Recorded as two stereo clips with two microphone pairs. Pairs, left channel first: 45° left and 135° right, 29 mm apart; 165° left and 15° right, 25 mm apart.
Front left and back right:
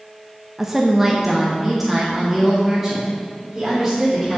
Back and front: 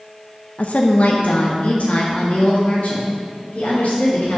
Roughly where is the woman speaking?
Behind left.